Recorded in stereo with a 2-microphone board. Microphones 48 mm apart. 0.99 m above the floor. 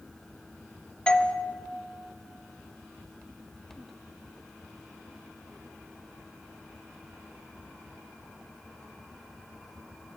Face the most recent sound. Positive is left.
turn(degrees=15)  # may be behind; listen again after turning